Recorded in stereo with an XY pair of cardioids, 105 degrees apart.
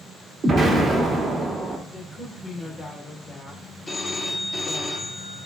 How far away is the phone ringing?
About 1.8 m.